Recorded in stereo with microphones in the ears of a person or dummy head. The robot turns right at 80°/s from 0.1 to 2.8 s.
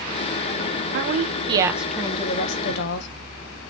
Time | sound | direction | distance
0.9 | a woman speaking | 75° right | 0.7 m